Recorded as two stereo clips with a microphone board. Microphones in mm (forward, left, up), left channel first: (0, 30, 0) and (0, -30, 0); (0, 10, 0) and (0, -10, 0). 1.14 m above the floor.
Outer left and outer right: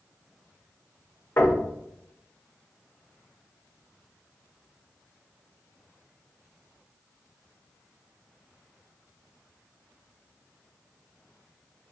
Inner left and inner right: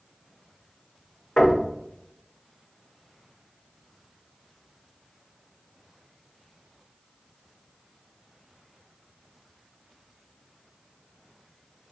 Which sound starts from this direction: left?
Knocking, at 1.4 s.